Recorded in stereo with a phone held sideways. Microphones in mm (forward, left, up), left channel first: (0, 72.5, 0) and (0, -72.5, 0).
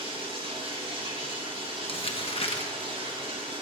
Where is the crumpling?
40° left (ahead or behind), 1.1 m.